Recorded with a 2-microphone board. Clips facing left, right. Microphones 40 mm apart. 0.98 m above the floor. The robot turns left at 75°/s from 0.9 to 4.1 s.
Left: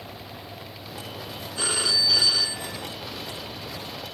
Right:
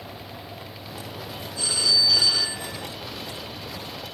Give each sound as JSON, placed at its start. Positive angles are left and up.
{"t": 1.6, "sound": "a phone ringing", "azimuth_deg": 50, "distance_m": 1.5}